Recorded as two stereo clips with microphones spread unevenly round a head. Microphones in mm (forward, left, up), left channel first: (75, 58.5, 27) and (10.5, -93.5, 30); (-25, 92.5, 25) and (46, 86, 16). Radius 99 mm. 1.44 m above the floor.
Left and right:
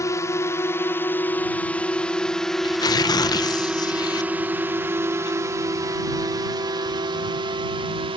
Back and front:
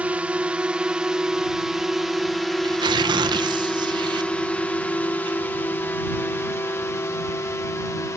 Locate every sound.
0.0 s a drone: 25° left; by 8.2 s 155° right
2.6 s tearing paper: straight ahead